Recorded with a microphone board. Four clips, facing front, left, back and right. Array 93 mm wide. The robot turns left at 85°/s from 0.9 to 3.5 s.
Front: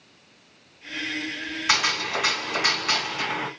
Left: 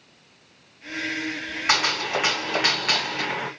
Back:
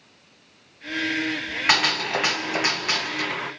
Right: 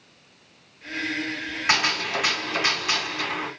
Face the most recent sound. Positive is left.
turn(degrees=35)